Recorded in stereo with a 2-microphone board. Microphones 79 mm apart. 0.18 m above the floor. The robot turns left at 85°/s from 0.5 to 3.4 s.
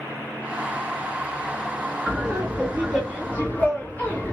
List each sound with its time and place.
2.1 s laughter: 100° right, 2 m; by 4.3 s 145° left, 2 m